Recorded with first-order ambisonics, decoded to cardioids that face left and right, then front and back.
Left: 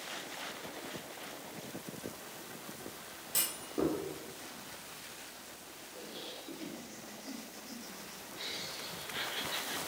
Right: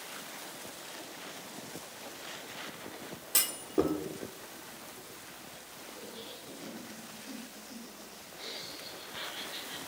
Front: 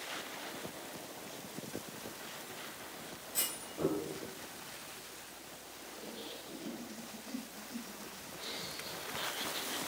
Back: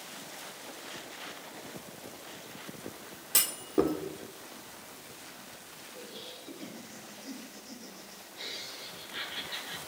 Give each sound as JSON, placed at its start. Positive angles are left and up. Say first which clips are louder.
{"t": 3.3, "sound": "a clunk", "louder": "right 5 dB, back 11 dB", "azimuth_deg": -160, "distance_m": 1.7}
{"t": 5.9, "sound": "laughter", "louder": "left 2 dB, back 1 dB", "azimuth_deg": 145, "distance_m": 6.5}